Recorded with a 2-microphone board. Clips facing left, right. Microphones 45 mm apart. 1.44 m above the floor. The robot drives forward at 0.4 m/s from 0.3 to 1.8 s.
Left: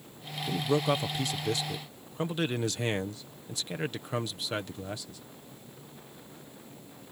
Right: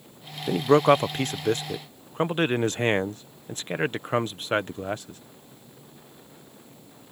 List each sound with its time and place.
0.5 s a man speaking: 60° right (ahead or behind); by 5.2 s 40° right (ahead or behind)